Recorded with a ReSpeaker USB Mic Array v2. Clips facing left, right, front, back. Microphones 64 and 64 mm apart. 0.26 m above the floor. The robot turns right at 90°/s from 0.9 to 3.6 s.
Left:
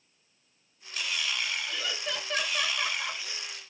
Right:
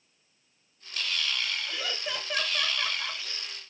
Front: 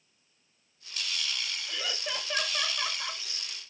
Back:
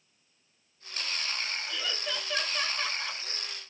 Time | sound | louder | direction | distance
1.7 | laughter | even, back 1 dB | 80° right | 1.1 m